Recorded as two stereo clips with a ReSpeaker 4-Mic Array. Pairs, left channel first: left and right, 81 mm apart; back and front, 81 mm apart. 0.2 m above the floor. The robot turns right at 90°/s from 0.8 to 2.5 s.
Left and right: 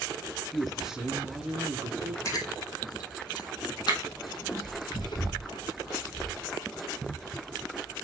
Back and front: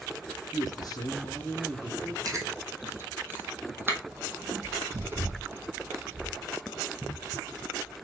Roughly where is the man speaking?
Behind.